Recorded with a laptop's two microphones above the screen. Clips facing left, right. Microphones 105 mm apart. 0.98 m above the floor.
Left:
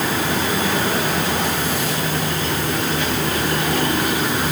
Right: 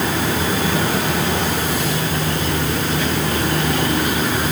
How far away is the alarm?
No alarm in this recording.